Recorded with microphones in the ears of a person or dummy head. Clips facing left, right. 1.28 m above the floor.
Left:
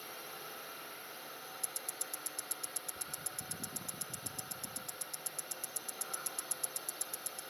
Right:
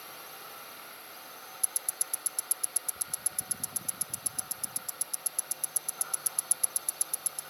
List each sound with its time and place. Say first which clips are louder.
0.0 s a drone: even; 20° left (ahead or behind)
1.6 s ticking: even; 10° right (ahead or behind)